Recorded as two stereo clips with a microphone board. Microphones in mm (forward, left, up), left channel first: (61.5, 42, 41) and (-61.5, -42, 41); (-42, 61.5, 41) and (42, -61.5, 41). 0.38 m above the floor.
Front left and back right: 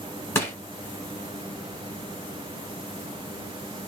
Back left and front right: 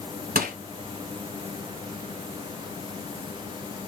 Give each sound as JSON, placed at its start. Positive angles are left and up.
{"t": 0.3, "sound": "crushing", "azimuth_deg": -40, "distance_m": 1.1}